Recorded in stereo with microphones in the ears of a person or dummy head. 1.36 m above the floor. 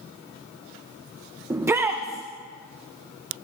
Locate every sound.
1.5 s a shout: 10° right (ahead or behind), 0.5 m